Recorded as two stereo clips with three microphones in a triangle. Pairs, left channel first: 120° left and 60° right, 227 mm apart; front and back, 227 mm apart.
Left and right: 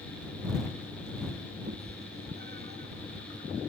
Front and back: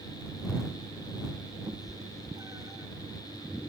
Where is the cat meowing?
105° right.